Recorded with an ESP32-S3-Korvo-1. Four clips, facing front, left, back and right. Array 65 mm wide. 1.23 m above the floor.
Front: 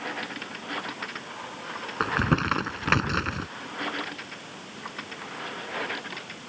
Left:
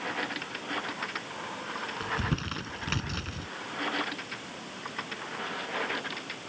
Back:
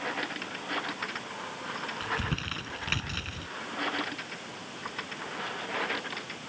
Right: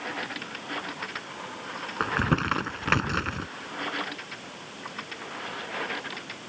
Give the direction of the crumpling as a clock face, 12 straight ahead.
1 o'clock.